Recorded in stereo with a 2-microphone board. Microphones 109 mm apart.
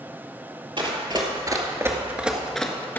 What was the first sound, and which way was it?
Running footsteps, 50° right (ahead or behind).